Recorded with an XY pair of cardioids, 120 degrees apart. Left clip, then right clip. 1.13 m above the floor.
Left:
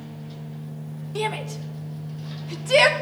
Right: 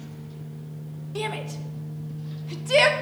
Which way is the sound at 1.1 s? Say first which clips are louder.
Left 3 dB; 10° left.